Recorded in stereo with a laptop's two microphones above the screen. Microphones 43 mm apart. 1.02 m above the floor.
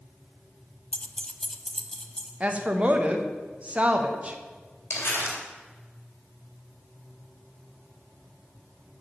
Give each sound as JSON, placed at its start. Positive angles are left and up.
{"t": 0.9, "sound": "keys jangling", "side_deg": 30, "distance_m": 0.7}
{"t": 2.4, "sound": "a woman speaking", "side_deg": -30, "distance_m": 1.1}
{"t": 4.9, "sound": "crumpling", "side_deg": 60, "distance_m": 3.5}